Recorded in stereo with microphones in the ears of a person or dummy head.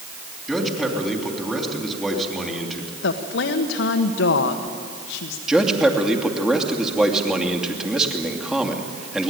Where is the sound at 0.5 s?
Centre (ahead or behind), 3.5 m.